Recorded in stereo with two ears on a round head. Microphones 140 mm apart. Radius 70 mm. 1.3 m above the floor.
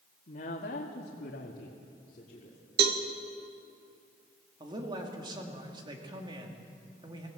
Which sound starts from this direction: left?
A woman speaking, at 0.3 s.